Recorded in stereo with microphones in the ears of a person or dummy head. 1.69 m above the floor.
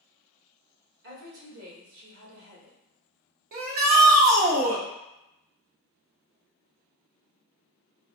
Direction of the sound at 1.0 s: 75° right (ahead or behind).